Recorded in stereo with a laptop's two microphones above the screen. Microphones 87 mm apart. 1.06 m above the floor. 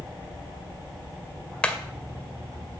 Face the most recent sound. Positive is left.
turn(degrees=15)  # may be behind; listen again after turning